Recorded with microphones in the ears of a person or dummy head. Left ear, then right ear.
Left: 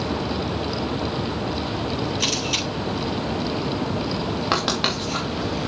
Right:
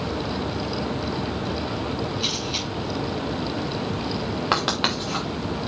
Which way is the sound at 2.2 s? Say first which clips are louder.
Left 4 dB; 60° left (ahead or behind).